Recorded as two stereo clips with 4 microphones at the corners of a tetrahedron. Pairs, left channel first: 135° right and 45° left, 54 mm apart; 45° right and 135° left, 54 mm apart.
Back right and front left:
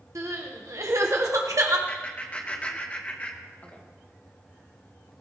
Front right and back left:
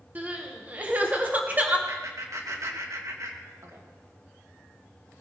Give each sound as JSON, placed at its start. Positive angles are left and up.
{"t": 0.1, "sound": "crying", "azimuth_deg": 75, "distance_m": 1.5}
{"t": 1.9, "sound": "laughter", "azimuth_deg": 160, "distance_m": 2.5}